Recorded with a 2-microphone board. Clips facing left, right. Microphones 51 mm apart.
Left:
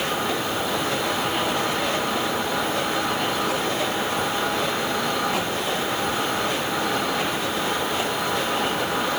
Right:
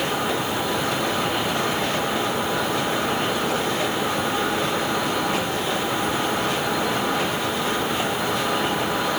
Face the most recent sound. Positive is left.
No sound to turn to.